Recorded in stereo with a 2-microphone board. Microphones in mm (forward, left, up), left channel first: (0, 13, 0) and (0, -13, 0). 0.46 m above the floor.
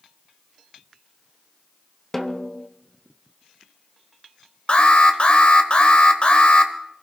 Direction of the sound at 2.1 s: 15° left (ahead or behind).